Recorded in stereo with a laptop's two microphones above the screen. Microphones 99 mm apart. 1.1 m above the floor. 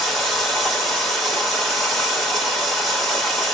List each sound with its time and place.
0.0 s running water: 5° left (ahead or behind), 2 m